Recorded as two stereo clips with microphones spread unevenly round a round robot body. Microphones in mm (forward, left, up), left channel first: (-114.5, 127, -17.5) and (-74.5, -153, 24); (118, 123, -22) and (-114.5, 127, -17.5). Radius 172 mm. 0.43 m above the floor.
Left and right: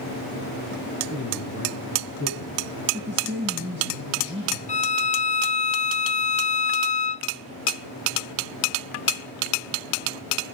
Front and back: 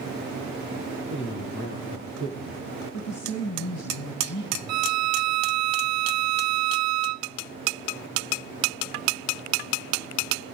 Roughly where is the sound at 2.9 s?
Ahead.